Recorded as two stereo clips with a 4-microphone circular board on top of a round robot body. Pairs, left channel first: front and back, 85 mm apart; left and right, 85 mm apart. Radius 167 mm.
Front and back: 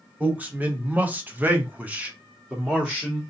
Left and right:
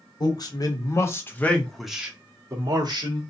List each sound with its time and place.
0.2 s a man speaking: 110° left, 1.7 m; by 3.2 s 100° right, 1.5 m